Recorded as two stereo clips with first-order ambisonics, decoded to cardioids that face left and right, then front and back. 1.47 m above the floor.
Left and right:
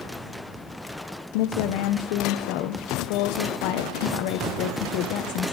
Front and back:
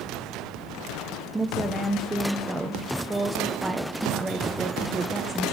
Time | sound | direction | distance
1.3 | a woman speaking | 100° left | 1.2 m